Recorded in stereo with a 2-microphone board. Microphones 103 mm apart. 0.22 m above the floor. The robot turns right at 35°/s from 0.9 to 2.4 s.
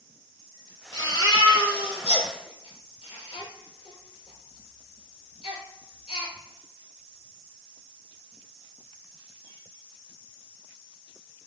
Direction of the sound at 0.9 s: 30° left (ahead or behind).